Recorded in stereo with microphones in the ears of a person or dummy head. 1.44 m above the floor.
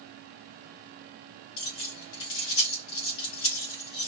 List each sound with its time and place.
1.6 s keys jangling: 65° left (ahead or behind), 1.3 m